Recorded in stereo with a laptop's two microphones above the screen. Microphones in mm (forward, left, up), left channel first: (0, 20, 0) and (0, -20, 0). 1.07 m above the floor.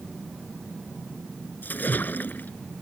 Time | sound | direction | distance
1.6 | a splash | 50° left (ahead or behind) | ?